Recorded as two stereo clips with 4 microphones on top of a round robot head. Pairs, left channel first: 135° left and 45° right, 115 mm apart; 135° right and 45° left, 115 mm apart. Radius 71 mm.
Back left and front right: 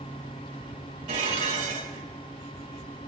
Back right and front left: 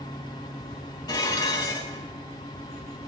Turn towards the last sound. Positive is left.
turn(degrees=-80)